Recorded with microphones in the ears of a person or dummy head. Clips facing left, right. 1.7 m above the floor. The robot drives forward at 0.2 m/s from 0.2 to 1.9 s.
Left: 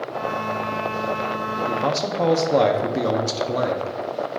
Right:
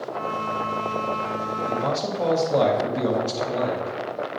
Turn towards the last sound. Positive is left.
turn(degrees=60)  # may be behind; listen again after turning